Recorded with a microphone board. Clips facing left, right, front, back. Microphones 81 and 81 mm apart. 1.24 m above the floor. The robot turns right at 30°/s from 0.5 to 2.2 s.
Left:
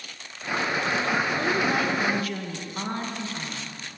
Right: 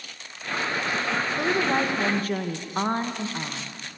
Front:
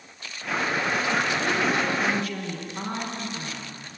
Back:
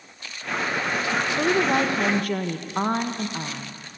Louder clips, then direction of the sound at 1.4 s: Right 1 dB, back 4 dB; 165° right.